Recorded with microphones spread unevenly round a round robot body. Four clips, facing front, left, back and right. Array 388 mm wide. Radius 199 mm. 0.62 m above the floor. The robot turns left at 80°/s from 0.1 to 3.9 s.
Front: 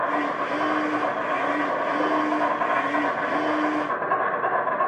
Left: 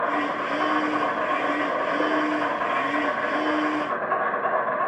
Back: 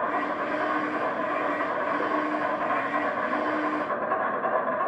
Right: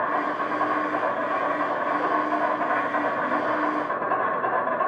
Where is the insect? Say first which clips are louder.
Even, front 3 dB; 170° left, 2 m; by 4.9 s 135° right, 2 m.